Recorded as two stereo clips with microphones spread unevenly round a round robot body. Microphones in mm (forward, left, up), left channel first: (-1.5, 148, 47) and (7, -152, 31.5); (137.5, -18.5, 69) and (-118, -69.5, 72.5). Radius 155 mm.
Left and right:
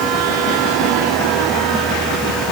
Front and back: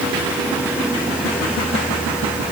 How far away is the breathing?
No breathing in this recording.